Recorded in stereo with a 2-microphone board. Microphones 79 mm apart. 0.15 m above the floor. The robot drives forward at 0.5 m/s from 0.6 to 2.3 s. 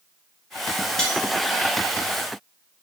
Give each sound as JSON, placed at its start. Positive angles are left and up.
{"t": 1.0, "sound": "cutlery clinking", "side_deg": 10, "distance_m": 1.3}